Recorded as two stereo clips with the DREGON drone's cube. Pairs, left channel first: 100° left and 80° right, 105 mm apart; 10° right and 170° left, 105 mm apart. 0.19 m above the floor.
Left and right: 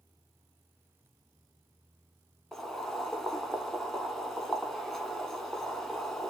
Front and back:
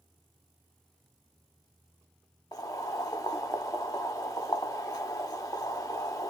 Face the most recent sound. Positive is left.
turn(degrees=15)